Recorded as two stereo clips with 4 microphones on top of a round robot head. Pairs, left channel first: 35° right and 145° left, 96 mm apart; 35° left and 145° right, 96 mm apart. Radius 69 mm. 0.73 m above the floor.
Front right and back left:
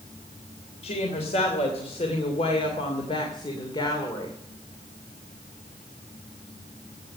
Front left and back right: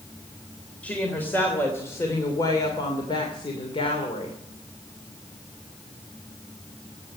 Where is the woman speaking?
40° right, 3 m; by 4.3 s 15° left, 2.5 m.